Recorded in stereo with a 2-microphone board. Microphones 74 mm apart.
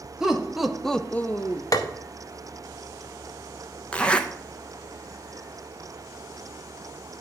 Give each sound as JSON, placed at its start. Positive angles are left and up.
{"t": 0.2, "sound": "laughter", "side_deg": -10, "distance_m": 1.5}
{"t": 1.7, "sound": "tapping", "side_deg": 50, "distance_m": 0.8}
{"t": 3.9, "sound": "a zipper", "side_deg": 15, "distance_m": 0.7}